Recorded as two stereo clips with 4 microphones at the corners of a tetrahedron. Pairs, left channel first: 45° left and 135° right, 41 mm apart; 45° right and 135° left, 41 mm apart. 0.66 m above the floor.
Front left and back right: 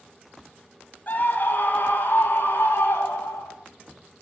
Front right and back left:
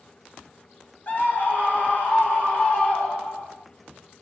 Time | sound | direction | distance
1.1 | a scream | straight ahead | 5 m